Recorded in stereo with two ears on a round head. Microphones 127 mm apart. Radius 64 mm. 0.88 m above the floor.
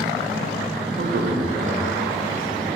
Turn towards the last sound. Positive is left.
turn(degrees=-65)  # may be behind; listen again after turning